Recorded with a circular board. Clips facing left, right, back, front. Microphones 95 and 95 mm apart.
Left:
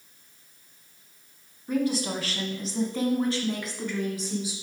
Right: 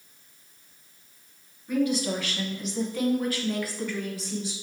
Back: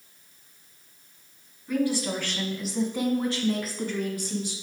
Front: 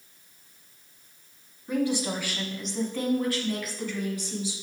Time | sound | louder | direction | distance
1.7 | a woman speaking | right 1 dB, back 1 dB | 55° left | 1.5 m